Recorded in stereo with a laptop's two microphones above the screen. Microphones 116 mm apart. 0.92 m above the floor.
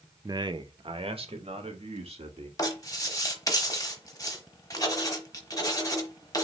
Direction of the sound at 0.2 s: 30° right (ahead or behind).